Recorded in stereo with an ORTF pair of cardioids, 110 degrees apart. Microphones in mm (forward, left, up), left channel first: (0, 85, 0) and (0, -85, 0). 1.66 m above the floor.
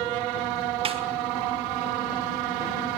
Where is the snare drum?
30° right, 2.5 m.